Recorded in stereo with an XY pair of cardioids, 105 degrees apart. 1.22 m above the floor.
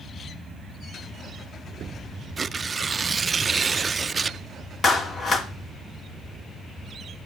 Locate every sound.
2.4 s tearing paper: 30° right, 0.5 m
4.8 s a clap: 40° left, 2.5 m